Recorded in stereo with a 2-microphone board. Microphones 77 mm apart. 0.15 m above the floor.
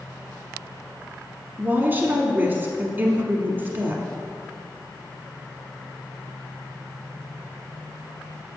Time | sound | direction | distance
1.6 | a woman speaking | 25° right (ahead or behind) | 1.1 m